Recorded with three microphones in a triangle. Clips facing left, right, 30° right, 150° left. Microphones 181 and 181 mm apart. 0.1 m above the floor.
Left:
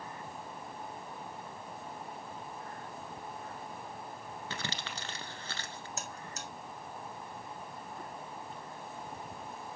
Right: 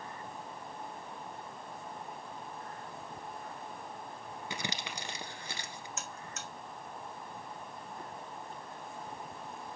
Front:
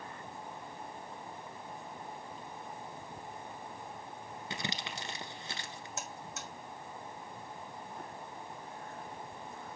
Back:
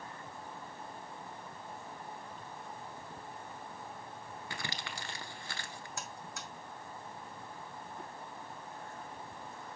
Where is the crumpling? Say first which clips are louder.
Right 2 dB, front 4 dB; 45° right, 1.0 m.